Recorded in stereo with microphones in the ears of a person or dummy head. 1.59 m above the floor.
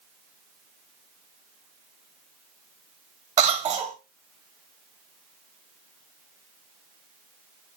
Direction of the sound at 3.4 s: 20° right (ahead or behind).